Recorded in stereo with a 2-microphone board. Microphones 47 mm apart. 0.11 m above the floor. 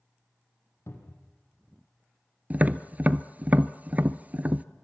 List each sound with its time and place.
0.9 s a cupboard door: 70° left (ahead or behind), 3.5 m
2.5 s tapping: 35° right (ahead or behind), 0.7 m